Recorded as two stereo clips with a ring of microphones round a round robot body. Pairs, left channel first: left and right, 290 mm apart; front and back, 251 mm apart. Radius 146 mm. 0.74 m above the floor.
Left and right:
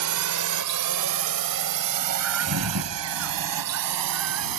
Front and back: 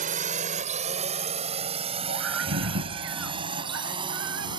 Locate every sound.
0.0 s a drone: 115° right; by 4.6 s 105° right
2.1 s a scream: 130° right